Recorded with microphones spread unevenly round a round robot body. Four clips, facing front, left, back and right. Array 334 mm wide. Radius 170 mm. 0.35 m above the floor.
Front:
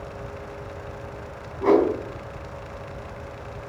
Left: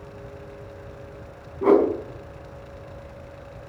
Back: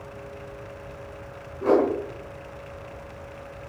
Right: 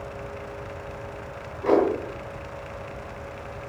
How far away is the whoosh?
About 4 m.